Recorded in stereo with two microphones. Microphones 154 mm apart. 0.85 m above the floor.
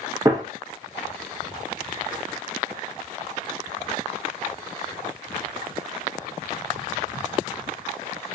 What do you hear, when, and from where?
0.2 s a gunshot: 25° right (ahead or behind), 0.8 m